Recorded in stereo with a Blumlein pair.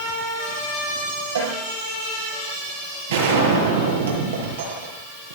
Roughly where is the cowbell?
Ahead right.